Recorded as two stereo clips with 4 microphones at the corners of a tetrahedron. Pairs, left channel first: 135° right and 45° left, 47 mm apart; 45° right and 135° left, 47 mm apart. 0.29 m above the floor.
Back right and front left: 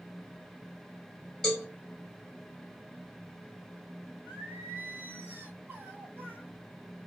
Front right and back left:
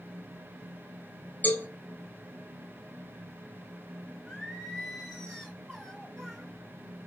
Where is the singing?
35° left, 1.9 m.